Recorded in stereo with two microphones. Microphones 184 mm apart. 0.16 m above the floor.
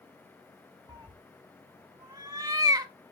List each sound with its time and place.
0.9 s a cat meowing: 20° right (ahead or behind), 0.5 m